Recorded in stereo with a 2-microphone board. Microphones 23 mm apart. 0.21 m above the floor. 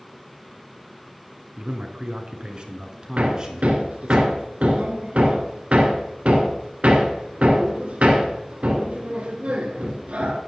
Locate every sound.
1.6 s a man speaking: 50° right (ahead or behind), 2 m; by 4.2 s 25° right (ahead or behind), 2.5 m
3.2 s hammering: 70° right (ahead or behind), 2 m